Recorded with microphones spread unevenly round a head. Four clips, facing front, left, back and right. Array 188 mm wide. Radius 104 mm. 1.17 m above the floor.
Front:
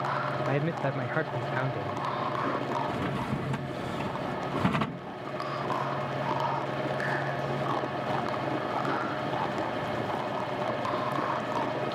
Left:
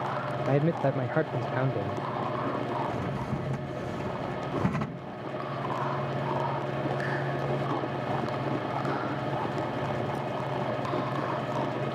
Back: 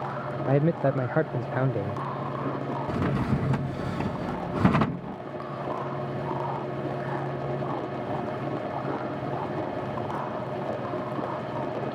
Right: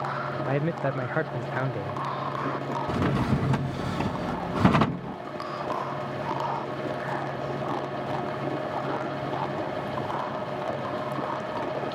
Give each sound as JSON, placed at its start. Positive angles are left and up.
{"t": 0.5, "sound": "a man speaking", "azimuth_deg": 160}
{"t": 2.9, "sound": "a drawer", "azimuth_deg": -90}